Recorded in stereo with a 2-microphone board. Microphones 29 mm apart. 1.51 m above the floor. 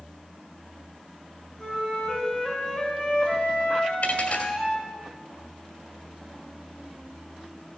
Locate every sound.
1.6 s a flute: 15° left (ahead or behind), 3.5 m
4.0 s a dropped coin: 55° left (ahead or behind), 1.9 m